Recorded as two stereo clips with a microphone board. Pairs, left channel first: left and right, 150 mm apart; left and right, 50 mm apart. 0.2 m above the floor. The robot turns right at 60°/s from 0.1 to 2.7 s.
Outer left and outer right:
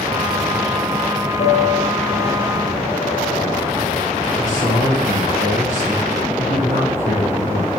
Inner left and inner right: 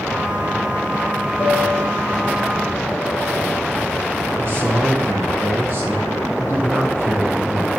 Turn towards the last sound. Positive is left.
turn(degrees=-55)  # may be behind; listen again after turning